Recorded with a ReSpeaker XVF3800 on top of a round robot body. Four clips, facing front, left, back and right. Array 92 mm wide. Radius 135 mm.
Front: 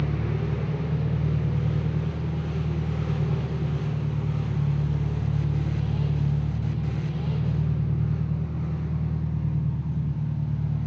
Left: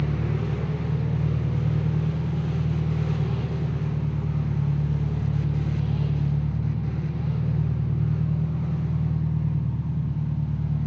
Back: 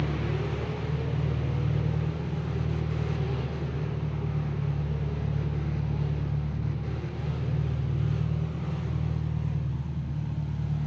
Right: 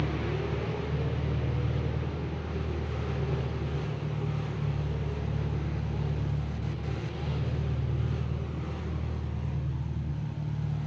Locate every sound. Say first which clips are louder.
0.0 s an engine running: left 3 dB, front 2 dB; 60° left, 2.5 m